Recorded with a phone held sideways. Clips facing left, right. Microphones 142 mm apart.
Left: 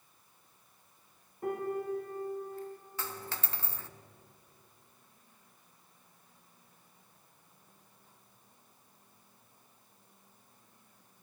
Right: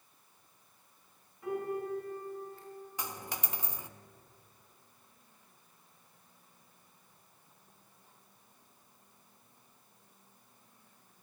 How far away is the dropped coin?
About 0.5 m.